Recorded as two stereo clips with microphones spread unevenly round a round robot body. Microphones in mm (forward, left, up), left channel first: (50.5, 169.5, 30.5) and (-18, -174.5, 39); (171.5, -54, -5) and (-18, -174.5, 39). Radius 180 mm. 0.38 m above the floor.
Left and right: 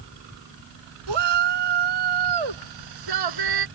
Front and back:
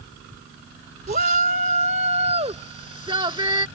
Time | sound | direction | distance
1.1 | a shout | 95° right | ?